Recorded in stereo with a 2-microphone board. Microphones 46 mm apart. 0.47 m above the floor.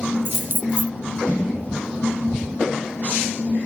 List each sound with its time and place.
0.2 s keys jangling: 50° right (ahead or behind)